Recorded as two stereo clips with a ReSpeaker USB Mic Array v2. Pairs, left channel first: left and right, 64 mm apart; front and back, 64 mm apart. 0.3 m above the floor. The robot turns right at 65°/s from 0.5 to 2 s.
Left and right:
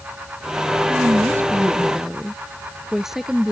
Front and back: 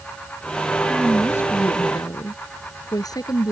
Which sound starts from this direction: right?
A woman speaking, at 0.9 s.